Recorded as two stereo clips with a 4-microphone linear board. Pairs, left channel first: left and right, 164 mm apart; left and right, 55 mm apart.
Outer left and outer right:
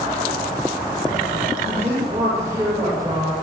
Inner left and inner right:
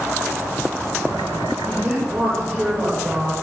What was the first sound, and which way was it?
A woman speaking, 15° right (ahead or behind).